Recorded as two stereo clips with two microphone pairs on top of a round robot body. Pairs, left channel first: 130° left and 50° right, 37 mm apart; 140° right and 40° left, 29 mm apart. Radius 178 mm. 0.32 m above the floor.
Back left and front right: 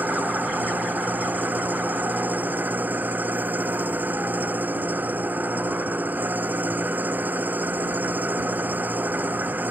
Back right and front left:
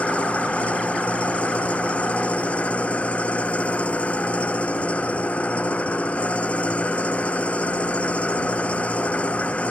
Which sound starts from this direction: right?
An engine running, at 0.0 s.